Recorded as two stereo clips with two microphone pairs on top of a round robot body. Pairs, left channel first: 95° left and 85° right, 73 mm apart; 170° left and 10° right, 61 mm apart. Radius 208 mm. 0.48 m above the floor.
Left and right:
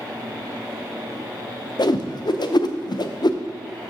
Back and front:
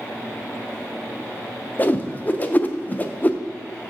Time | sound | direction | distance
1.8 | a whoosh | 110° left | 0.7 m